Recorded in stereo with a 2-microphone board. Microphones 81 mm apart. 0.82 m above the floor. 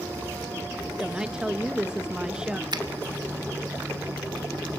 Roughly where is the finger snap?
Right.